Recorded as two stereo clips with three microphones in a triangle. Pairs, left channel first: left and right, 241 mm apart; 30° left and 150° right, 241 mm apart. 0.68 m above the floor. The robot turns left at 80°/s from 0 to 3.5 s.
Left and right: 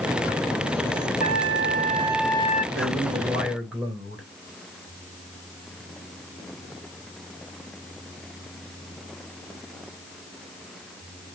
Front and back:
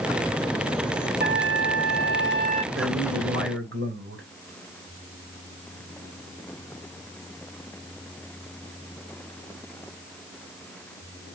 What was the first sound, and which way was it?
A trumpet, 100° right.